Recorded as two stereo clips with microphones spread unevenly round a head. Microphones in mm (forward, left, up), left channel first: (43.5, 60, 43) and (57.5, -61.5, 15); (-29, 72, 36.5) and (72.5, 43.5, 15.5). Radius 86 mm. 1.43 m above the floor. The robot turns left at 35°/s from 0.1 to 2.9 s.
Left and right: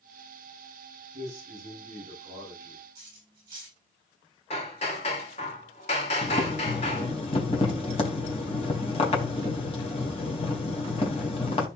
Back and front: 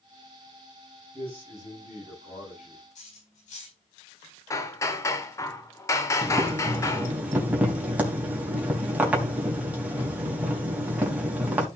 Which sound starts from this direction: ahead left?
Boiling, at 6.2 s.